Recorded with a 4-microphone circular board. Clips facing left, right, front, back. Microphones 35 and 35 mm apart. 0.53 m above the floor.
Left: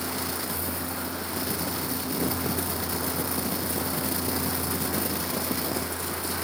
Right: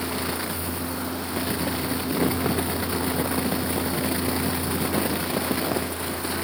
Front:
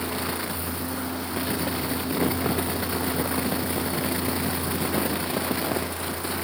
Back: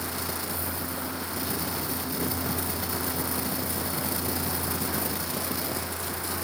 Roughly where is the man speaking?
No man speaking in this recording.